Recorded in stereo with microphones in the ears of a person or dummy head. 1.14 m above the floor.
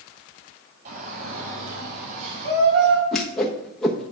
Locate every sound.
0.8 s a shout: 55° right (ahead or behind), 6 m; by 3.0 s 65° right (ahead or behind), 4.5 m
3.1 s a whoosh: 5° left (ahead or behind), 1.1 m